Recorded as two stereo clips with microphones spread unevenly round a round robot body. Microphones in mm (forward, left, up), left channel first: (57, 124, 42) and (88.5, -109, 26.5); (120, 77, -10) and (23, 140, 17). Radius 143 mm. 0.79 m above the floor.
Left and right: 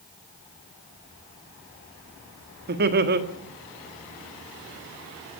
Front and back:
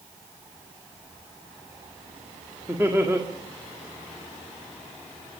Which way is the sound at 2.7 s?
125° right.